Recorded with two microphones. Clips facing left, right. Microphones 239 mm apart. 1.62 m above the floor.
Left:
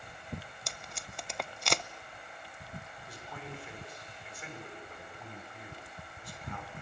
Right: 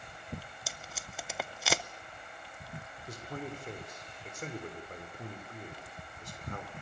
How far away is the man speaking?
About 6.5 m.